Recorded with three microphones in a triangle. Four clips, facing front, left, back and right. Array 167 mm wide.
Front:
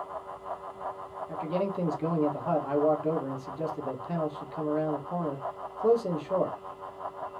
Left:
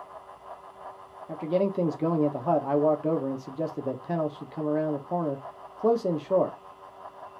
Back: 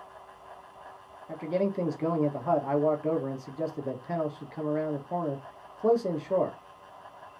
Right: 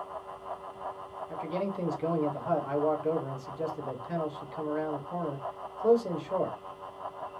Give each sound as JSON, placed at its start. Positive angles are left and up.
{"t": 1.3, "sound": "a man speaking", "azimuth_deg": 100, "distance_m": 1.3}